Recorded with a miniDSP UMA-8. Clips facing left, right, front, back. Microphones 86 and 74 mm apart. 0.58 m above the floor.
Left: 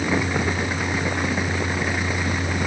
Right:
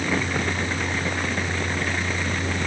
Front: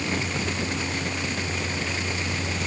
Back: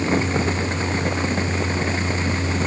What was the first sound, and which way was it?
Only background noise.